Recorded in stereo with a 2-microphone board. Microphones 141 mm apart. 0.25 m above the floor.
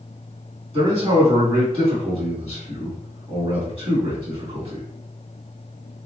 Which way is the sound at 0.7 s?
45° right (ahead or behind).